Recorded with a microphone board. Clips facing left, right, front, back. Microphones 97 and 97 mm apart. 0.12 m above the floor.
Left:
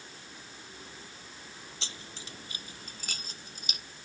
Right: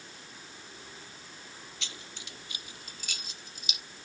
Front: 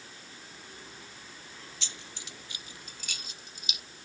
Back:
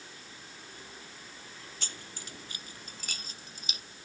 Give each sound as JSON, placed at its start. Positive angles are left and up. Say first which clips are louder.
{"t": 1.8, "sound": "keys jangling", "louder": "left 2 dB, back 1 dB", "azimuth_deg": 145}